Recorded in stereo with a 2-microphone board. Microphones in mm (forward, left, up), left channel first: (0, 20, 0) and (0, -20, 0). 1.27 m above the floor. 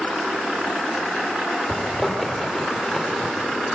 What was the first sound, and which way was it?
A zipper, 5° left (ahead or behind).